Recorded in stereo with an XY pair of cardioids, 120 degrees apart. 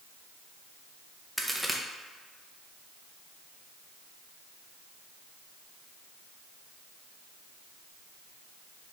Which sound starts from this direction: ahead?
A crack, at 1.4 s.